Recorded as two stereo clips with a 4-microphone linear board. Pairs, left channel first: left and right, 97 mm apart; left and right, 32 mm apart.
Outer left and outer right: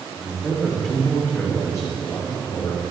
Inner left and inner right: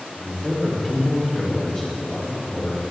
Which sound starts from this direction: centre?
A man speaking, at 0.2 s.